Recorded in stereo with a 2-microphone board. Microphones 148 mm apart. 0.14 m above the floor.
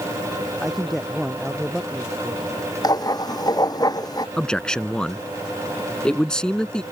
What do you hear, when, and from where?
0.6 s a man speaking: centre (ahead or behind)
2.8 s writing: 30° left (ahead or behind)
4.4 s a man speaking: 5° left (ahead or behind)